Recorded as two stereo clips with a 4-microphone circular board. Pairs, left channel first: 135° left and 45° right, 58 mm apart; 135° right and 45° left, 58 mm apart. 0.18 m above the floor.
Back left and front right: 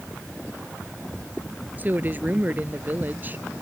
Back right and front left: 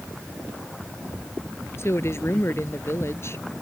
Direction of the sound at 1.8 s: 100° right.